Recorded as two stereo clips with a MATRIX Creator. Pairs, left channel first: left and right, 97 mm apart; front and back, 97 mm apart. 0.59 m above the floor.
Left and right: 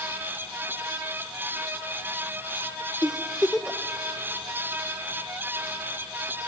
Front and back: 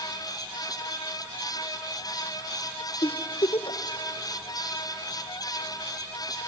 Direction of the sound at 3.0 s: 5° right.